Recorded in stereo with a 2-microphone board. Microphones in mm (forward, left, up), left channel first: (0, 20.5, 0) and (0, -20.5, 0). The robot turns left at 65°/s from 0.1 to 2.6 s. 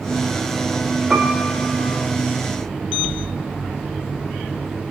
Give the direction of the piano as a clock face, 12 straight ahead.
1 o'clock.